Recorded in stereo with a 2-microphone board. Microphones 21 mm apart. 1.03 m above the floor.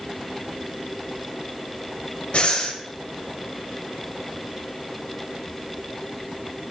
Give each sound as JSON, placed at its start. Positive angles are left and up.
{"t": 2.3, "sound": "breathing", "side_deg": 70, "distance_m": 1.6}